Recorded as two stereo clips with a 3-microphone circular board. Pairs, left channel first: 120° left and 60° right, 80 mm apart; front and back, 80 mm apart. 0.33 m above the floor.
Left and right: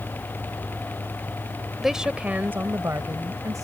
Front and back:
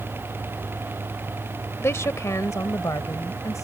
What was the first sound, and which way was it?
A woman speaking, 25° left.